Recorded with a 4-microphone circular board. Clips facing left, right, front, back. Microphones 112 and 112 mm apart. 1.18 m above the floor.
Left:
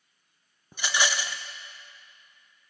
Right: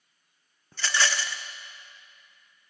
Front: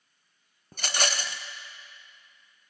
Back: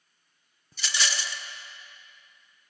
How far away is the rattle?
About 0.5 m.